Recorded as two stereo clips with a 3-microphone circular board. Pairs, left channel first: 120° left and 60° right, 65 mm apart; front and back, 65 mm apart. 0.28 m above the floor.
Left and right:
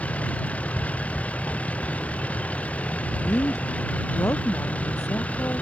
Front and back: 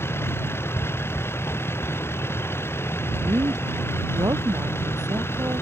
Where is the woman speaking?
165° left.